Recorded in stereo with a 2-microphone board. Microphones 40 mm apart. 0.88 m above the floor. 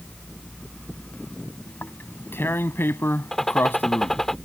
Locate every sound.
1.7 s tearing paper: 70° left (ahead or behind)
3.3 s a gunshot: 10° left (ahead or behind)